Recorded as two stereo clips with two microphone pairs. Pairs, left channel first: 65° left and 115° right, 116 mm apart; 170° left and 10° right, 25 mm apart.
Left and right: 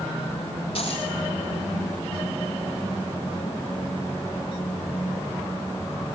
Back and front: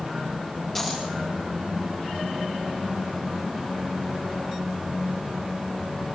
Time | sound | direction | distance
0.8 | a dropped coin | 100° left | 9.5 m